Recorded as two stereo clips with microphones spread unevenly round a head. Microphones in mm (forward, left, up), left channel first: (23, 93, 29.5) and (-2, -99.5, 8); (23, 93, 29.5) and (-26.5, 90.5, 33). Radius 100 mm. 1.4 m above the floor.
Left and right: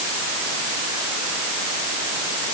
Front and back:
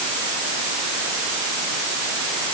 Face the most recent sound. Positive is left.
No sound to turn to.